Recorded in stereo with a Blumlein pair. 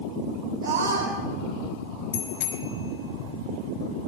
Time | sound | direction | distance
0.6 | a scream | 50° right | 5 m
2.1 | a bicycle bell | 55° left | 3 m